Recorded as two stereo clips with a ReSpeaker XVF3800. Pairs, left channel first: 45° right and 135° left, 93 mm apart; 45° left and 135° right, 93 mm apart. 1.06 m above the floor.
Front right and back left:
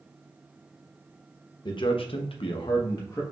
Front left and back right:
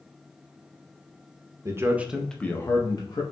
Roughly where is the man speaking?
Right.